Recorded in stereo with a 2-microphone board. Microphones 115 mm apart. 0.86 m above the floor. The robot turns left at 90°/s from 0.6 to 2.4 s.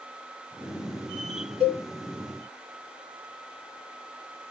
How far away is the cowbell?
About 2.5 m.